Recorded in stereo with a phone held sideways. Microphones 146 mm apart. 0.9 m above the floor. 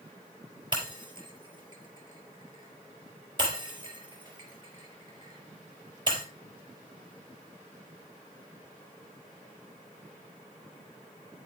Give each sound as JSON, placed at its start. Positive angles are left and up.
{"t": 0.7, "sound": "breaking glass", "side_deg": -30, "distance_m": 4.0}